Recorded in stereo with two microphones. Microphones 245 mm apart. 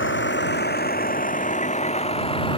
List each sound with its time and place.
0.0 s a vehicle: 50° left (ahead or behind); by 2.6 s 20° left (ahead or behind)